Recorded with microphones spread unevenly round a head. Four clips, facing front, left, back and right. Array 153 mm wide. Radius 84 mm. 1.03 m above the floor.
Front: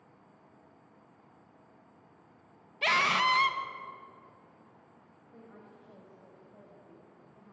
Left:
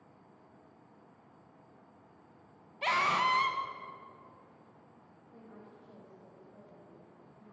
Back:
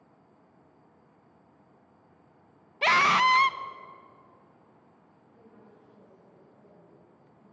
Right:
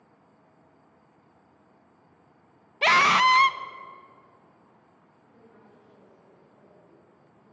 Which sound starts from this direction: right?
A scream, at 2.8 s.